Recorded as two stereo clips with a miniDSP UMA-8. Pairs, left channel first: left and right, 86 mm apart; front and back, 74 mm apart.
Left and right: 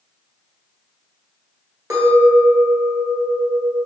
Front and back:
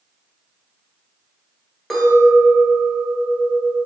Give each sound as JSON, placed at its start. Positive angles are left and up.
{"t": 1.9, "sound": "a clink", "azimuth_deg": -85, "distance_m": 1.3}